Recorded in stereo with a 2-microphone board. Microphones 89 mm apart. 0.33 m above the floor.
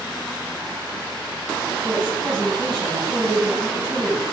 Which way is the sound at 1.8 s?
60° right (ahead or behind).